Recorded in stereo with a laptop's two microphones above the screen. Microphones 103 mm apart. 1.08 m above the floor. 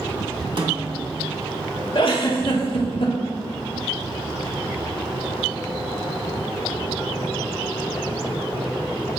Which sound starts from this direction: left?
A giggle, at 1.9 s.